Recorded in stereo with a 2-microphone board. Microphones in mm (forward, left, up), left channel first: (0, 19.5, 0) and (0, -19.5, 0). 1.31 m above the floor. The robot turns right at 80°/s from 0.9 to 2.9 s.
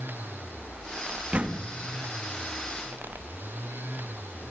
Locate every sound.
1.3 s a door slam: 25° right (ahead or behind), 1.6 m; by 1.7 s 55° right (ahead or behind), 1.6 m